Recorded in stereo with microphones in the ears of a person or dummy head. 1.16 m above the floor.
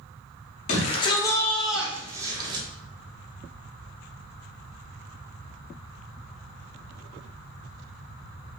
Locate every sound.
0.7 s a shout: 35° left (ahead or behind), 0.7 m; by 2.6 s 25° right (ahead or behind), 0.9 m